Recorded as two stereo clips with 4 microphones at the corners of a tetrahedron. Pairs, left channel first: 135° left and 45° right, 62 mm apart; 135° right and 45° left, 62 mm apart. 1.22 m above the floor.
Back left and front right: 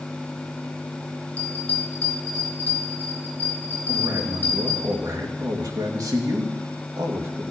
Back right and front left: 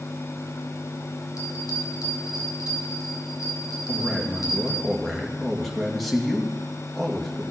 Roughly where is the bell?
Behind.